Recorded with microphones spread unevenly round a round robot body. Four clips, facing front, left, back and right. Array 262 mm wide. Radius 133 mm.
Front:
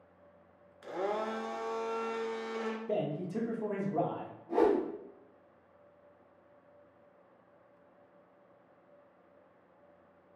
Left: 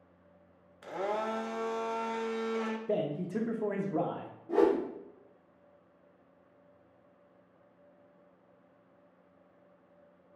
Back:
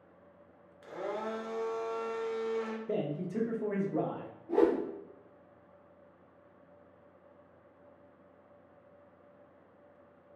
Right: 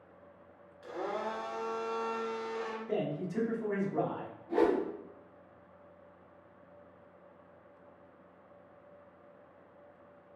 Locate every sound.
0.8 s a blender: 60° left, 0.6 m
2.9 s a man speaking: 85° left, 0.8 m
4.5 s a whoosh: 125° left, 1.3 m